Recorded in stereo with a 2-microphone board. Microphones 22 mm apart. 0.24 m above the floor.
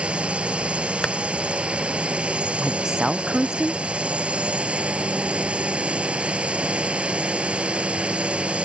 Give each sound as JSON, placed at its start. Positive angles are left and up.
{"t": 0.0, "sound": "a drone", "side_deg": -65}
{"t": 1.0, "sound": "tapping", "side_deg": 30}
{"t": 2.6, "sound": "a woman speaking", "side_deg": -25}